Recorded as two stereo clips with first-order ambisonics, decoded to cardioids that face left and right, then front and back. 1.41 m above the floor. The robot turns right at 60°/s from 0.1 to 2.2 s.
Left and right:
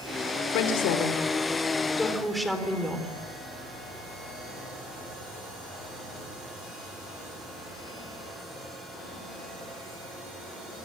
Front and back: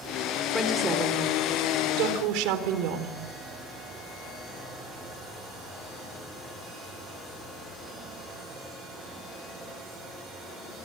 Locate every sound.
0.5 s a woman speaking: 85° left, 4 m; by 3.1 s straight behind, 4 m